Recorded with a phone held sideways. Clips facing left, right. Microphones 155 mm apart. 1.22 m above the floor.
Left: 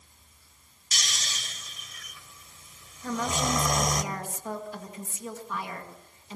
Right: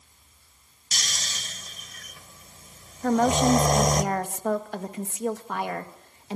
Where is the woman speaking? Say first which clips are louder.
Right 9 dB; 65° right (ahead or behind), 1.9 m.